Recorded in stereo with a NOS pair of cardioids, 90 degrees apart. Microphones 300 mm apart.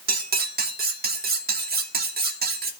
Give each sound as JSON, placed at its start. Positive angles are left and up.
{"t": 0.1, "sound": "cutlery clinking", "azimuth_deg": -30, "distance_m": 3.0}